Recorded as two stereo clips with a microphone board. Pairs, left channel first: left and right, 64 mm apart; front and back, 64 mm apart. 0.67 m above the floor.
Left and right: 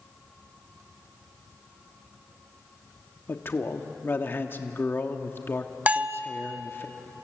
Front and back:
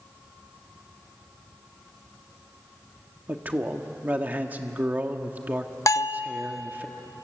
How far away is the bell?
About 0.6 m.